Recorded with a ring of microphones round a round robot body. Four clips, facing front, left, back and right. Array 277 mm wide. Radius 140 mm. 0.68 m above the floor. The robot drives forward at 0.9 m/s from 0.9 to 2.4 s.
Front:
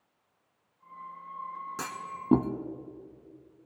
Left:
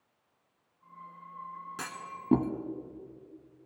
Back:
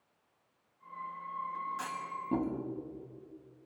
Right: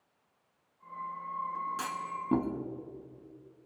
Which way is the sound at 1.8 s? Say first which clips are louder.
Right 5 dB, front 1 dB; 15° left.